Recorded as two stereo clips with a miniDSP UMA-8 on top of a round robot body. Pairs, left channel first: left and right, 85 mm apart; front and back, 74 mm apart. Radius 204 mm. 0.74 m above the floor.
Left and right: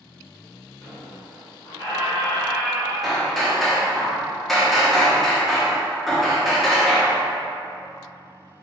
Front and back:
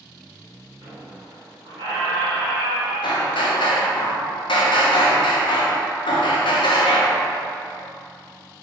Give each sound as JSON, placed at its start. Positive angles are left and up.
{"t": 0.8, "sound": "a squeak", "azimuth_deg": 150, "distance_m": 0.7}
{"t": 3.0, "sound": "hammering", "azimuth_deg": 0, "distance_m": 0.6}